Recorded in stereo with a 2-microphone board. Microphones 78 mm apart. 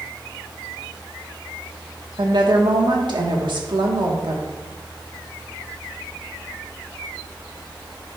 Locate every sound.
2.2 s a woman speaking: 65° right (ahead or behind), 1.4 m